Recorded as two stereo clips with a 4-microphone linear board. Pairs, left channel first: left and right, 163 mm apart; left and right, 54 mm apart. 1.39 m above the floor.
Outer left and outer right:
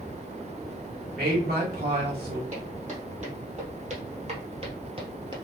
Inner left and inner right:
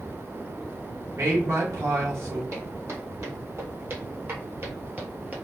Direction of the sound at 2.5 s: 50° right (ahead or behind).